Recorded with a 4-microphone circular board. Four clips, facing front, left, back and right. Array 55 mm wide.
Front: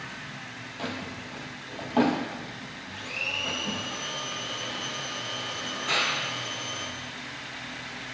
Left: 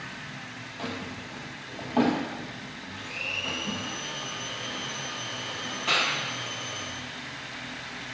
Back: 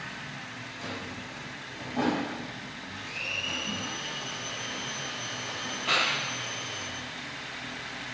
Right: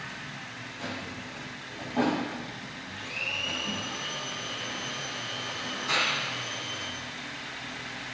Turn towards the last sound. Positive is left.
turn(degrees=110)